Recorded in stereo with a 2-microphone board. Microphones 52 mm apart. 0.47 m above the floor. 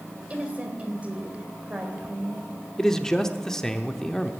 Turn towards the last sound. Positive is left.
turn(degrees=10)  # may be behind; listen again after turning